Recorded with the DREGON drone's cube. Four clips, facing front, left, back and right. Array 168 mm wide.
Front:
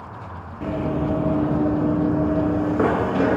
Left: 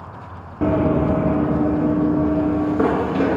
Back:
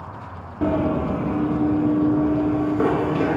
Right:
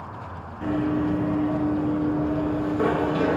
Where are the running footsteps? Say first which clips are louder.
Left 6 dB, back 3 dB; 110° left, 0.7 m; by 3.4 s 35° left, 1.8 m.